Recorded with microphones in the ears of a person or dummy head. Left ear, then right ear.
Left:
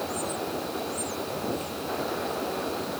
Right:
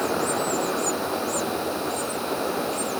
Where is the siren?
I don't hear a siren.